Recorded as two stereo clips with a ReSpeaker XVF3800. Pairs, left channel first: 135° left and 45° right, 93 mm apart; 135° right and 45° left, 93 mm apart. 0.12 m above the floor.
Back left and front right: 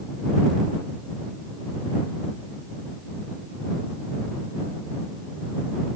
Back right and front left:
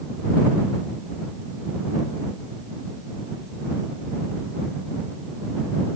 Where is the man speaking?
I don't hear a man speaking.